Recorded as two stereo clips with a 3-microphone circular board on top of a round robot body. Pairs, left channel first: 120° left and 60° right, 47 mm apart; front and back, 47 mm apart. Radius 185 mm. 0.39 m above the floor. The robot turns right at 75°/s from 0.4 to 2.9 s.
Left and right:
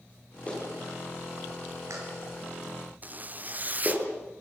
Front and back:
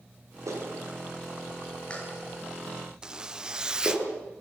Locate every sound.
0.5 s a clap: 175° right, 6.5 m; by 4.0 s 10° left, 6.5 m
3.0 s a zipper: 110° right, 1.0 m